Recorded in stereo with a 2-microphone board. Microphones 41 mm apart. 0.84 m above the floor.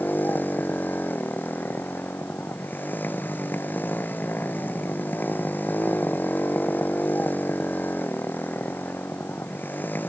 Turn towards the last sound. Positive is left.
turn(degrees=45)  # may be behind; listen again after turning